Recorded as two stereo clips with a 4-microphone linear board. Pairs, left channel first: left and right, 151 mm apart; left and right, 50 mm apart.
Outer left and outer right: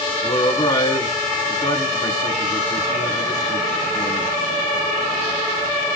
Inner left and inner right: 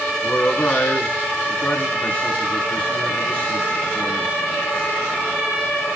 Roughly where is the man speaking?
Left.